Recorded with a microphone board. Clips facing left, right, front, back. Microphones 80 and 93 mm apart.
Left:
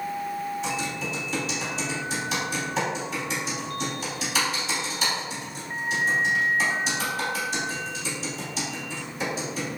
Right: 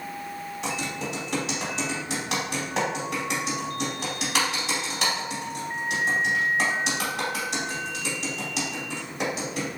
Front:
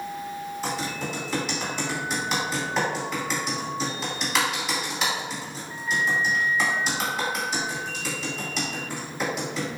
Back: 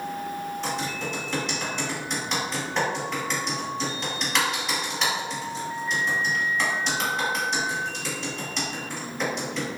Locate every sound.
0.6 s typing on a keyboard: 85° right, 1.9 m